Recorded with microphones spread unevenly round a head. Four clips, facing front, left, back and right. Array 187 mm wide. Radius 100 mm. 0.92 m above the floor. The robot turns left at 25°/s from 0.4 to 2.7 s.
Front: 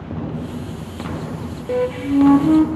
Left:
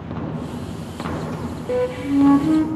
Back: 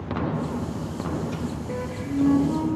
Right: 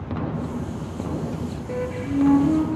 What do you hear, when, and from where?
1.7 s a flute: 35° left, 1.3 m; by 2.6 s 15° left, 1.3 m